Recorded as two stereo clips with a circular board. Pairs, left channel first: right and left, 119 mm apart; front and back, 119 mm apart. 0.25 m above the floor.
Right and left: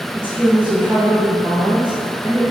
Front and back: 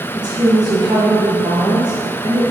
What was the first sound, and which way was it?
A woman speaking, 165° left.